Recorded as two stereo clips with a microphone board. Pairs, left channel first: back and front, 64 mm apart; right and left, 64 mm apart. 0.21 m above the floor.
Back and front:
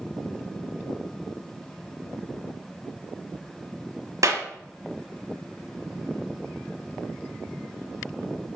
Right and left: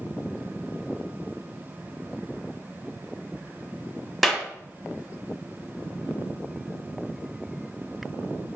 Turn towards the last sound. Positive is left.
turn(degrees=-5)